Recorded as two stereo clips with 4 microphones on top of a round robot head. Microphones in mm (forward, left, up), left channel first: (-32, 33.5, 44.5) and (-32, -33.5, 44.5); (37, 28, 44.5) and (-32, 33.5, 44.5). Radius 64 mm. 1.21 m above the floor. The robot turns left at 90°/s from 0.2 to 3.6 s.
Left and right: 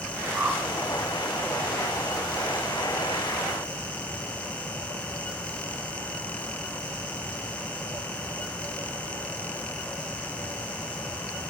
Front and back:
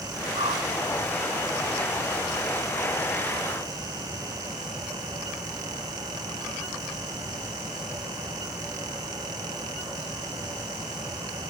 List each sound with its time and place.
0.3 s a whoosh: 150° right, 3 m; by 0.7 s straight behind, 3 m